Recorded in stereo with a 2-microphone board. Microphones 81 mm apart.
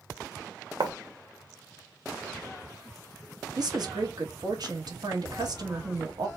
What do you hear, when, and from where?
0.8 s writing: 70° right (ahead or behind), 0.7 m
3.6 s a woman speaking: 60° right (ahead or behind), 1.1 m